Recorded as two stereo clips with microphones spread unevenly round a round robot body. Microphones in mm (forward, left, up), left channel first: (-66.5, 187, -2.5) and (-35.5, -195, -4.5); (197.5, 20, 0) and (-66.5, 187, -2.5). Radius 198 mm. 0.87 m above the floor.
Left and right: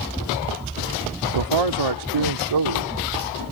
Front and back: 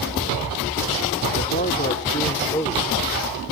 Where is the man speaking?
95° right; by 2.9 s 115° right.